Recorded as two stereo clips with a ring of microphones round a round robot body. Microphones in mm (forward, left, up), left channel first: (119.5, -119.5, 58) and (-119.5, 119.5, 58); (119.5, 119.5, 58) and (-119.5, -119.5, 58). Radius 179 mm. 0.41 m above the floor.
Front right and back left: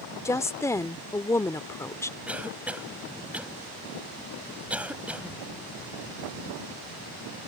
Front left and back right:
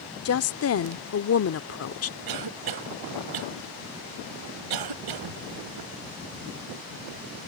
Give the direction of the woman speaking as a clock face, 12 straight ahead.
11 o'clock.